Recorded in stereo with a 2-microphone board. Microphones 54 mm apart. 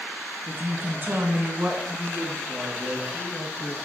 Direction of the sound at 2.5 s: 60° right (ahead or behind).